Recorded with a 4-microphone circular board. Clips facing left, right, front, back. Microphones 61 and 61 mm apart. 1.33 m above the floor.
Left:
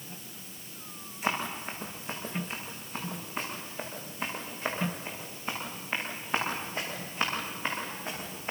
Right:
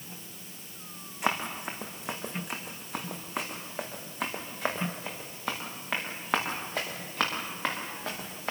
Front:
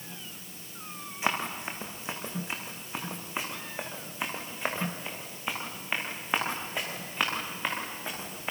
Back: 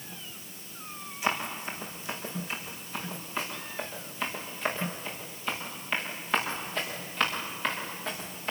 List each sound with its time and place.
1.2 s running footsteps: 65° right, 5 m; by 8.5 s 80° right, 8 m